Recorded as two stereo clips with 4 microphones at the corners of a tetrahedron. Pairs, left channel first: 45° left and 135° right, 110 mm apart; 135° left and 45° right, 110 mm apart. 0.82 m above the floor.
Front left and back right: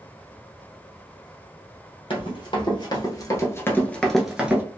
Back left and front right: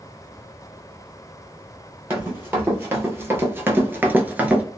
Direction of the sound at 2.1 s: 20° left.